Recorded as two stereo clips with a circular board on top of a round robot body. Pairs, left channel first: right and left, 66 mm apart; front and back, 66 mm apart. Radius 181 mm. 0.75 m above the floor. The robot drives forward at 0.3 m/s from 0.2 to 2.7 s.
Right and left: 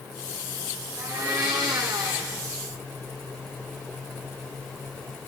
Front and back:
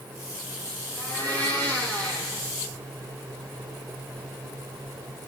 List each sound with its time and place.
1.0 s a blender: 65° left, 7.5 m; by 2.4 s 70° left, 7.5 m